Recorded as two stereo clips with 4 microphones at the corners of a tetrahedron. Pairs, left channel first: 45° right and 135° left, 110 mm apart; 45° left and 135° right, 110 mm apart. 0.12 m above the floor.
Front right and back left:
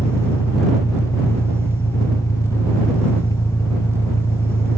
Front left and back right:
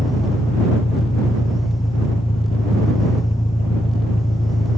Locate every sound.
0.0 s an engine running: 15° left